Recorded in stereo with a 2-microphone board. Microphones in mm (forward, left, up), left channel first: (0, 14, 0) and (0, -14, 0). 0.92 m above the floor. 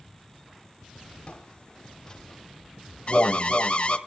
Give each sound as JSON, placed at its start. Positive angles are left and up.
{"t": 1.3, "sound": "footsteps", "side_deg": 35, "distance_m": 2.0}
{"t": 3.1, "sound": "an alarm", "side_deg": 35, "distance_m": 1.1}